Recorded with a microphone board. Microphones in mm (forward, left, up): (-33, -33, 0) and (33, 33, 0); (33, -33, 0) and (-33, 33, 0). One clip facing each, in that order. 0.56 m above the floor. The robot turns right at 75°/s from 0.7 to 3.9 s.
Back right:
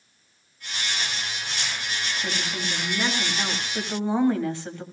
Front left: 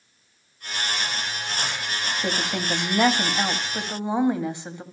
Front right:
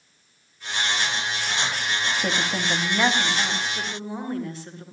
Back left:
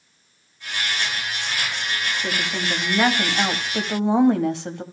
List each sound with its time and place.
2.2 s a woman speaking: 5° right, 2.5 m; by 4.8 s 120° left, 2.5 m